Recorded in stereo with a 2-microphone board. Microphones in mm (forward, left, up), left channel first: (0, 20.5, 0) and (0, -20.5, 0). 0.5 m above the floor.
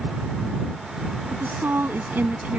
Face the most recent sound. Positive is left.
turn(degrees=-45)  # may be behind; listen again after turning